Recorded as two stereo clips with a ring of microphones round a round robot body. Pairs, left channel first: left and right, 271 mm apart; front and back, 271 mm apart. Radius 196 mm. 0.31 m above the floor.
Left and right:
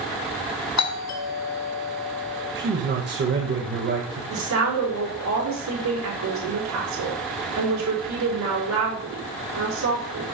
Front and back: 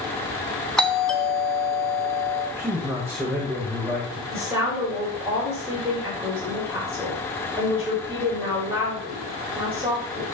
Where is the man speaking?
105° right, 1.4 m.